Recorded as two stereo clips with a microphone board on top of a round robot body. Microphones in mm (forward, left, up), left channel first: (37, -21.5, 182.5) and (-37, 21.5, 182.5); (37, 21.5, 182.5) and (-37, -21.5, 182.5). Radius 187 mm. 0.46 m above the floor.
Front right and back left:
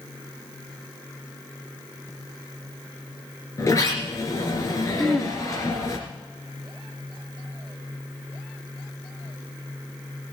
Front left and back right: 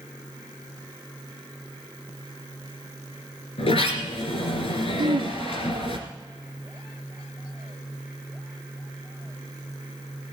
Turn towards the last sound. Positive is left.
turn(degrees=-115)